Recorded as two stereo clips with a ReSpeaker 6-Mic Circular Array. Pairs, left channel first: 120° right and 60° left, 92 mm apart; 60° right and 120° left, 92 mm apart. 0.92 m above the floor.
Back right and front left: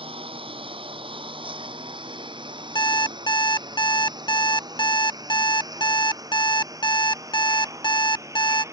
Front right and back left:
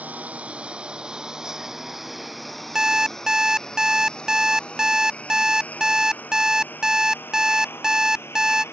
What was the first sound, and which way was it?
A lawn mower, 45° left.